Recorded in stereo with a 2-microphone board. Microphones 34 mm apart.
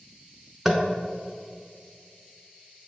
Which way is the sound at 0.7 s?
15° right (ahead or behind).